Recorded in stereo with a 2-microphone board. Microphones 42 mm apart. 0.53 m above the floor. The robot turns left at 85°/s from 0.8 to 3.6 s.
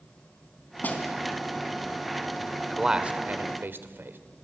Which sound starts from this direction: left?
A snare drum, at 0.8 s.